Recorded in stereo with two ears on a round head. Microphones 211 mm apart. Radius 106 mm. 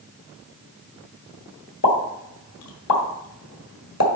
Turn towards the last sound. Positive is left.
turn(degrees=75)  # may be behind; listen again after turning